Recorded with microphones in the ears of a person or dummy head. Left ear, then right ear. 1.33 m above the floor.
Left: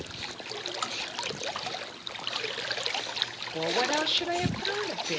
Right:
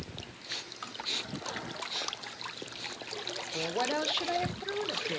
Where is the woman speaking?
5° left (ahead or behind), 0.9 m.